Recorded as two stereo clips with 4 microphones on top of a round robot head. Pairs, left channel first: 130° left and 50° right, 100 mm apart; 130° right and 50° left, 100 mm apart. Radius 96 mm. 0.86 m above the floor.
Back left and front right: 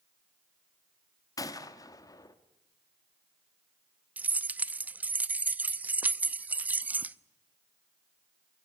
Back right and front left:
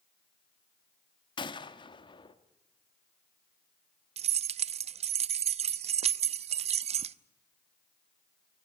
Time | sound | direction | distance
1.4 | a gunshot | 175° right | 1.5 m
4.2 | keys jangling | 25° left | 0.6 m